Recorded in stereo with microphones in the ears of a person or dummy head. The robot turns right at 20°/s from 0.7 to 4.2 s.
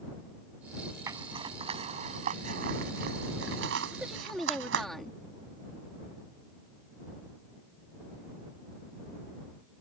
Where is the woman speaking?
5° right (ahead or behind); by 5.2 s centre (ahead or behind).